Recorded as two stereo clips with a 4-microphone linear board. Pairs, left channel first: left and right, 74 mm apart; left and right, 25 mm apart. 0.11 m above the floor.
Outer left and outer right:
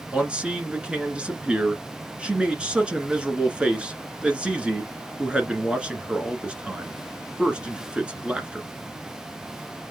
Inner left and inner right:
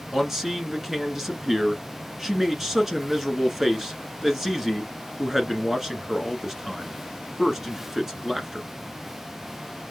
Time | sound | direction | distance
0.1 | a man speaking | 15° right (ahead or behind) | 1.1 m